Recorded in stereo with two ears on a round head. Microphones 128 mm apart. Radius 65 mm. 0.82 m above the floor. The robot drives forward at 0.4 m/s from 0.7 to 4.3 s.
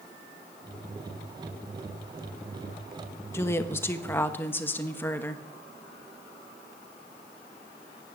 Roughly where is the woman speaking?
Centre.